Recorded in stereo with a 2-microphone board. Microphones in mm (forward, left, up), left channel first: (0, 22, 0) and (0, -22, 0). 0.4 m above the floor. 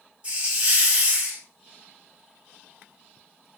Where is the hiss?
25° right (ahead or behind), 1.7 m.